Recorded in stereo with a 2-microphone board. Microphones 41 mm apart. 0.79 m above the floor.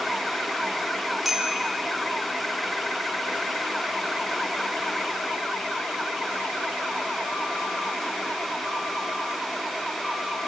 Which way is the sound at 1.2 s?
Centre (ahead or behind).